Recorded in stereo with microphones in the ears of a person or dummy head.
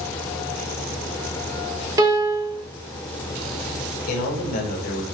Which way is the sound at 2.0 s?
15° right (ahead or behind).